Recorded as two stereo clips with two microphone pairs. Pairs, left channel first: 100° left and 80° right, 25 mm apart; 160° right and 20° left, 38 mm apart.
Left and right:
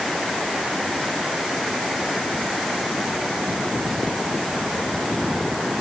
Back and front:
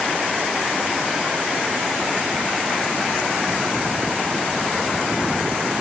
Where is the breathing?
I don't hear breathing.